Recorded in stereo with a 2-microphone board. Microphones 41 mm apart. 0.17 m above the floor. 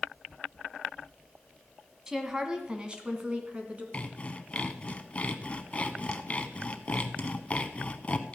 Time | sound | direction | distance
2.1 | a woman speaking | 15° right (ahead or behind) | 1.5 m
3.9 | sawing | 30° left (ahead or behind) | 0.8 m